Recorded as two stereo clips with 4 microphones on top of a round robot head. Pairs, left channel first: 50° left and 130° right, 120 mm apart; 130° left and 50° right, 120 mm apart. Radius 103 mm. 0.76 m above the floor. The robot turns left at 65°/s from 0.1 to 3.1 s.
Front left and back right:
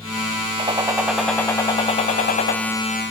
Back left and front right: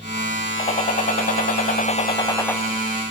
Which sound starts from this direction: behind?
A gunshot, at 0.6 s.